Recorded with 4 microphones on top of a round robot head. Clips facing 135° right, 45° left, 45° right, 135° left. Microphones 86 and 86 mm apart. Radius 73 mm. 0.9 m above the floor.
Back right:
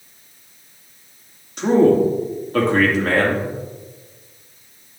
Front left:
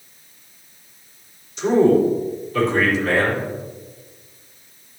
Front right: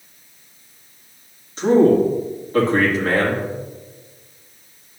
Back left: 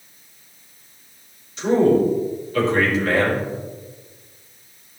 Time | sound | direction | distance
1.6 | a man speaking | 100° right | 2.5 m